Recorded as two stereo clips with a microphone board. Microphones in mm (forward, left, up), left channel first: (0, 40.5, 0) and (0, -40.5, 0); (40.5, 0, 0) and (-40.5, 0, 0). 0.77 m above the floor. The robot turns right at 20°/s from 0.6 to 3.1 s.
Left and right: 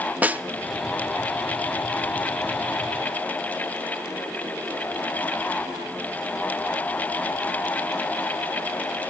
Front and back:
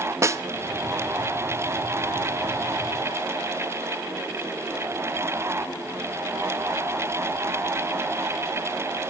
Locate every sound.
0.2 s a snare drum: 150° right, 0.6 m